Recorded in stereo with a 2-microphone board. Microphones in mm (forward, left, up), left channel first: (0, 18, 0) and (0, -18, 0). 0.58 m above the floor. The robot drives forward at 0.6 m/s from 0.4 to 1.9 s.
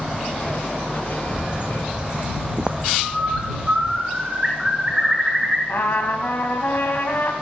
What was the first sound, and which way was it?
A bird, 35° right (ahead or behind).